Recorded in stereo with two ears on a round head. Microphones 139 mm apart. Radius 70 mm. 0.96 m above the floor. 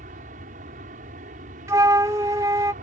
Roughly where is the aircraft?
Right.